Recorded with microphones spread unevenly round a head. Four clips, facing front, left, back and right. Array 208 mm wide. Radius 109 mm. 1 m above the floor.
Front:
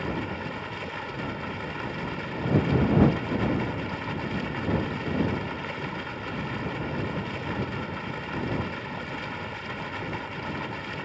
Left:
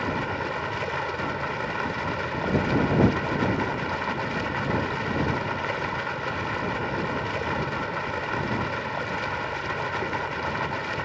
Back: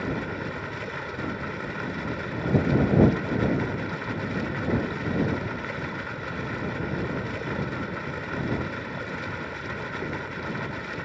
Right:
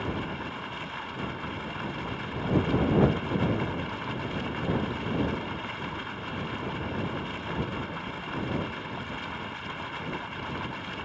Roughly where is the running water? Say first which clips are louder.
Left 5 dB, back 1 dB; left.